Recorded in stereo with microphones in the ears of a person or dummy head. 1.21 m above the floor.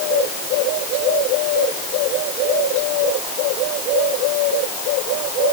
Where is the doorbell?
I don't hear a doorbell.